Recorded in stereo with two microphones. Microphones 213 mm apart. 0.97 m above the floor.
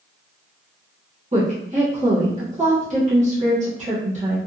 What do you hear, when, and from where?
1.3 s a woman speaking: 35° right (ahead or behind), 1.1 m